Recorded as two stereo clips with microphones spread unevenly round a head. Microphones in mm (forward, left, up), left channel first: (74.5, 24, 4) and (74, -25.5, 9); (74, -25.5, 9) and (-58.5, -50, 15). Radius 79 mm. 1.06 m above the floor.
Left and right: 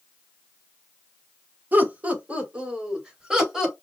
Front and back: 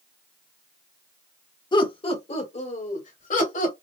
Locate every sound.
1.7 s laughter: 40° right, 1.3 m; by 3.8 s 10° right, 2.5 m